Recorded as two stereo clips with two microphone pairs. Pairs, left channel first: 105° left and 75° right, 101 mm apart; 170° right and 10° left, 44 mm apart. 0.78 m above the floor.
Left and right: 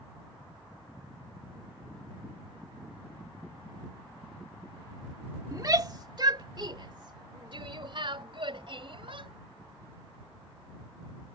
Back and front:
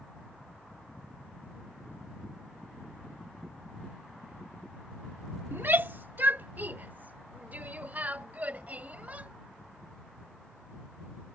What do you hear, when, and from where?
5.5 s a shout: 20° right; by 9.3 s 45° right